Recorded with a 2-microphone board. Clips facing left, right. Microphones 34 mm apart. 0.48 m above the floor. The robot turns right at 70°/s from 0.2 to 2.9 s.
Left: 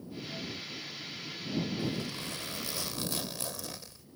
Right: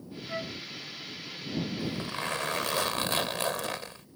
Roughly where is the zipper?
Behind right.